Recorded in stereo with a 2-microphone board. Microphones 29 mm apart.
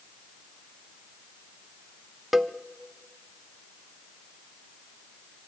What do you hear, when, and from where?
2.3 s a cowbell: 5° right (ahead or behind), 0.6 m